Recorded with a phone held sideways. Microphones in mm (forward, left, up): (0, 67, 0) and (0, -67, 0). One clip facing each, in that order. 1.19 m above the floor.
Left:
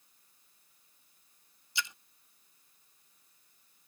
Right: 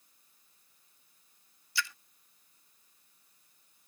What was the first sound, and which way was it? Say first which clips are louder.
A splash: right 2 dB; 20° left (ahead or behind).